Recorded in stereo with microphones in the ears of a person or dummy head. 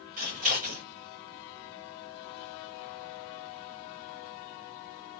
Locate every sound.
0.2 s scissors: 35° right (ahead or behind), 0.8 m